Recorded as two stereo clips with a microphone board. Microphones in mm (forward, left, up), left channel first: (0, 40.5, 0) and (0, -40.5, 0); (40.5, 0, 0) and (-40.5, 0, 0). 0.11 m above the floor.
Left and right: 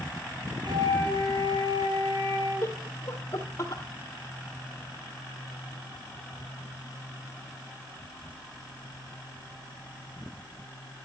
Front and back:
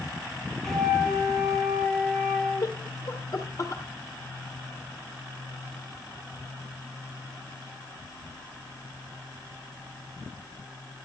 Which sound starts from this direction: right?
A flute, at 0.6 s.